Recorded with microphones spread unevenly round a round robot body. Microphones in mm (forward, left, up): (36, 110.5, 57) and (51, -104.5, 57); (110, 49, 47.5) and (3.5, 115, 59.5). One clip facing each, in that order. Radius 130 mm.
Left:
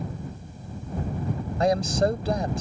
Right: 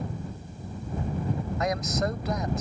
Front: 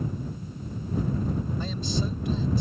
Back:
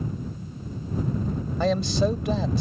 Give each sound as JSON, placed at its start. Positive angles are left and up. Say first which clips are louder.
{"t": 1.6, "sound": "a man speaking", "louder": "left 7 dB, back 8 dB", "azimuth_deg": 150}